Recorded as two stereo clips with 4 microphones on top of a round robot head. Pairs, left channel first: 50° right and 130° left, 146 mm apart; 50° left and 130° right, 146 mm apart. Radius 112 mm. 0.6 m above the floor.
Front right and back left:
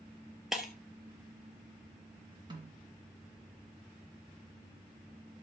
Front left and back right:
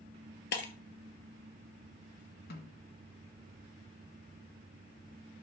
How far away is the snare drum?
About 1.9 m.